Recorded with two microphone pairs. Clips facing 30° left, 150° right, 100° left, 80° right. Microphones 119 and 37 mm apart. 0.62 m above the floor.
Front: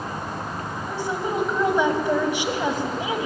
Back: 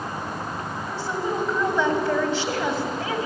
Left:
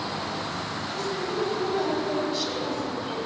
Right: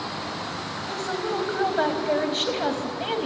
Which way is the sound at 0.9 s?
45° right.